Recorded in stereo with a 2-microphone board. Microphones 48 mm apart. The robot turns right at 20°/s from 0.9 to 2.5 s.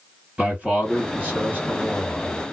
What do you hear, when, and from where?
0.4 s a man speaking: 140° right, 2.5 m; by 2.5 s 105° right, 2.5 m